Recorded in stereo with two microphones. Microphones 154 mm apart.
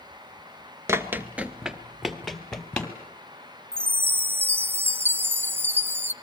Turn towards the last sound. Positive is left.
turn(degrees=-15)  # may be behind; listen again after turning